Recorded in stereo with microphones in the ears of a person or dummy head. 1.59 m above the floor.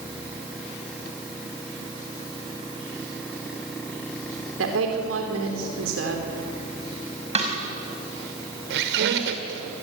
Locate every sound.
4.6 s a woman speaking: 80° right, 4 m
7.3 s a snare drum: 35° right (ahead or behind), 5 m
8.7 s a squeak: 60° right (ahead or behind), 2 m